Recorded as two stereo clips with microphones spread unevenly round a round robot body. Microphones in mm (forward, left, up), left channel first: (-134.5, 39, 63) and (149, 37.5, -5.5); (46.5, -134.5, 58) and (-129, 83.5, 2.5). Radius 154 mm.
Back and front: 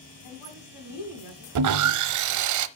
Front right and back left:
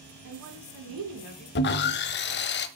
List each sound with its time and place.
0.2 s a woman speaking: 150° left, 4 m
1.6 s sawing: 10° left, 0.7 m